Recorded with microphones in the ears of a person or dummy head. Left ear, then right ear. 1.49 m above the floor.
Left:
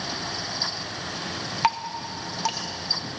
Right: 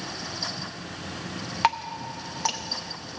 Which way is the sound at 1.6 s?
5° right (ahead or behind).